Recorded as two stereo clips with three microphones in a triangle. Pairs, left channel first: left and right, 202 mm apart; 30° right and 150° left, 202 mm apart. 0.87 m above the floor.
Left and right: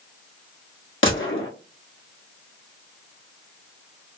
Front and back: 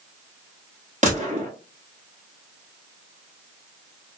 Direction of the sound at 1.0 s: 100° left.